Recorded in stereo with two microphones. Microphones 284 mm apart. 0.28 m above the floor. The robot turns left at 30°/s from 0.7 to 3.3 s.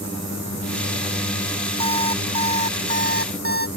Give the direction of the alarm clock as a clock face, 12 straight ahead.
3 o'clock.